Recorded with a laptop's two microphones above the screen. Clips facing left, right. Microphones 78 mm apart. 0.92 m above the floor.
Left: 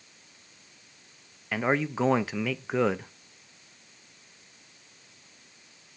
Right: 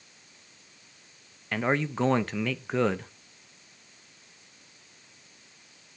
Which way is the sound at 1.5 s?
5° left (ahead or behind).